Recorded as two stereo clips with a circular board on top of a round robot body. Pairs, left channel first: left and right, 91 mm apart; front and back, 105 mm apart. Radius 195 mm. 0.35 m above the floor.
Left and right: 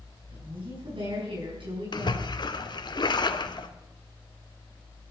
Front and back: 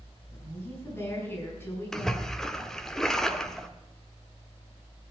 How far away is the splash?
About 1.8 m.